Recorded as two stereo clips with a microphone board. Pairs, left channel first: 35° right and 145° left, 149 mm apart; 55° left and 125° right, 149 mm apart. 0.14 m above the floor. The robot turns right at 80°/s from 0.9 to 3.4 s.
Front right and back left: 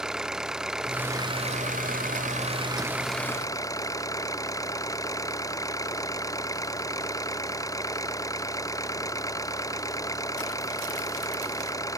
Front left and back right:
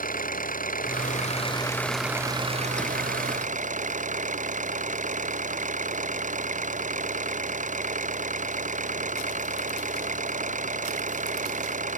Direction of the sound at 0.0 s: 60° left.